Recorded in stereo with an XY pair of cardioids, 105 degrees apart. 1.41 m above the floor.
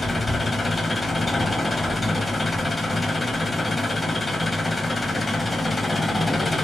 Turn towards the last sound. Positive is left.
turn(degrees=20)